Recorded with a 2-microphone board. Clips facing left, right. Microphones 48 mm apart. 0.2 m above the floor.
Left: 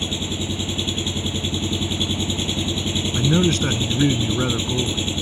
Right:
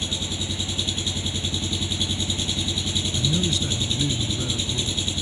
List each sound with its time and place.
0.0 s an engine running: 30° left (ahead or behind)
3.1 s a man speaking: 50° left (ahead or behind)